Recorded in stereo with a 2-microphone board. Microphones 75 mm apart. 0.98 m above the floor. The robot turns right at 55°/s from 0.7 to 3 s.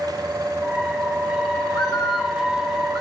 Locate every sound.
1.7 s a bird: 115° left, 7 m; by 3.0 s 170° right, 7 m